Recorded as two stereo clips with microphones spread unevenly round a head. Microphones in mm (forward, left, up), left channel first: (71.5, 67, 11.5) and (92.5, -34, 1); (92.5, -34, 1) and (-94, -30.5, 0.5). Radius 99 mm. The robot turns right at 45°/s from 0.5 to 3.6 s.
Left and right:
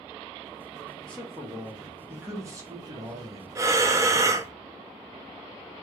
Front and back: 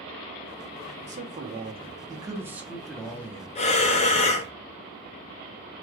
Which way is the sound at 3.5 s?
30° right.